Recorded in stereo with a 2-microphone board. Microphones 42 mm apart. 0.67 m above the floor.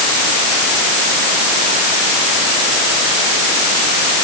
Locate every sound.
Only background noise.